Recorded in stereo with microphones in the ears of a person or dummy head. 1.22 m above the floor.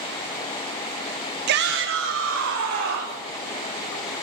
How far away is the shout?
About 0.6 m.